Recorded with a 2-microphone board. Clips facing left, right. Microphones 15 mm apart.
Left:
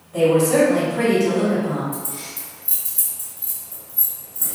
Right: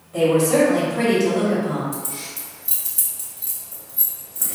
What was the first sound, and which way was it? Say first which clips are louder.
A woman speaking: left 1 dB; 10° right (ahead or behind).